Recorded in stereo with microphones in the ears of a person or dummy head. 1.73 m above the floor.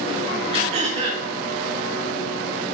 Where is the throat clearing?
40° right (ahead or behind), 0.7 m.